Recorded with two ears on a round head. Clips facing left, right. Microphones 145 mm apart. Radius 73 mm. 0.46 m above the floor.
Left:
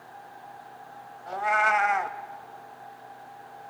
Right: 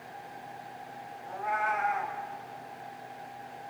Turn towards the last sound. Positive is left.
turn(degrees=85)